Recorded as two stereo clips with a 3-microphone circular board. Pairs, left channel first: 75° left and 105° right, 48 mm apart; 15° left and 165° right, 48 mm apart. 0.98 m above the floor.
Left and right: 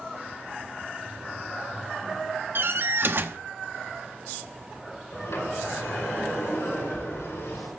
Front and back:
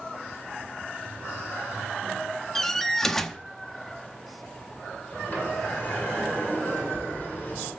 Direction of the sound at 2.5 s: 65° right.